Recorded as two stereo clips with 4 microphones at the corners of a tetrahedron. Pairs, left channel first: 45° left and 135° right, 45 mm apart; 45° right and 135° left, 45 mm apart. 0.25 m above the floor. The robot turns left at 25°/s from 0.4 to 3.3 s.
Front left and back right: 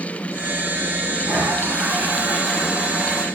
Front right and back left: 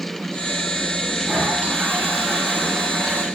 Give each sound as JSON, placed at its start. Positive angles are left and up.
{"t": 1.2, "sound": "a toilet flushing", "azimuth_deg": -165, "distance_m": 8.5}